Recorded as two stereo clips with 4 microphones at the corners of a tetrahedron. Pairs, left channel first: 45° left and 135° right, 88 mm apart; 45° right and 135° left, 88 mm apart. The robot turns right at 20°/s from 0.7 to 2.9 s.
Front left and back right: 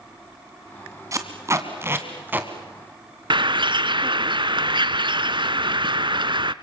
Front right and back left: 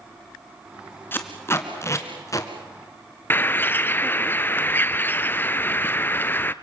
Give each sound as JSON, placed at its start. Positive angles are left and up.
{"t": 1.1, "sound": "tape being pulled", "azimuth_deg": -100, "distance_m": 2.0}
{"t": 3.3, "sound": "a bird", "azimuth_deg": -110, "distance_m": 0.7}